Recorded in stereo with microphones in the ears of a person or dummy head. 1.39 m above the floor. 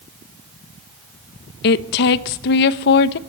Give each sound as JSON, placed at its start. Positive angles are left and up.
{"t": 1.6, "sound": "a woman speaking", "side_deg": 60, "distance_m": 1.1}